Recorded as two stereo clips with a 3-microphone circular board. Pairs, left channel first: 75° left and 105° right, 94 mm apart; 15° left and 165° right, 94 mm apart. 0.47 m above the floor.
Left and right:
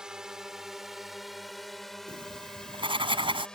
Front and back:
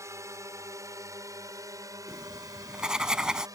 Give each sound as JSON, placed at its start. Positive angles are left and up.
{"t": 0.0, "sound": "a drone", "azimuth_deg": 180}
{"t": 2.1, "sound": "writing", "azimuth_deg": -80}